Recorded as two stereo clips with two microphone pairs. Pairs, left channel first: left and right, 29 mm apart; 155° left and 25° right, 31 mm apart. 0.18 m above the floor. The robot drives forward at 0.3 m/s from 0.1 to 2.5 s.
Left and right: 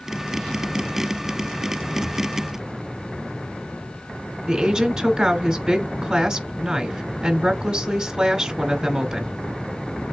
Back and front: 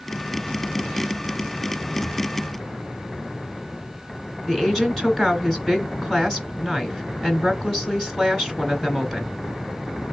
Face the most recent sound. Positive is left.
turn(degrees=-135)